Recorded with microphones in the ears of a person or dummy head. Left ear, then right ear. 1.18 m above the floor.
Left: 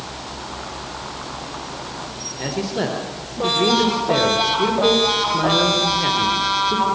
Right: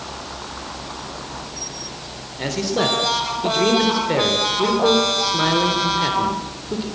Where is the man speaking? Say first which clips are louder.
Right 4 dB; 20° right (ahead or behind), 3.5 m.